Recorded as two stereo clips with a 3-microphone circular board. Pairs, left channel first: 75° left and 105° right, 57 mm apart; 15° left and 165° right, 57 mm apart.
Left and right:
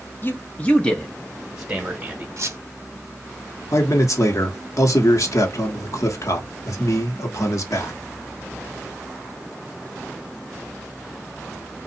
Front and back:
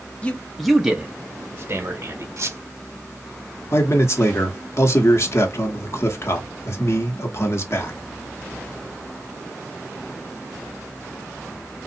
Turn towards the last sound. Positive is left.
turn(degrees=50)